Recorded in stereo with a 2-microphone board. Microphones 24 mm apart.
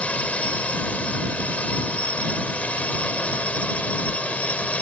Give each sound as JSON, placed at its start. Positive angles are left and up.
{"t": 0.0, "sound": "a drone", "side_deg": 65}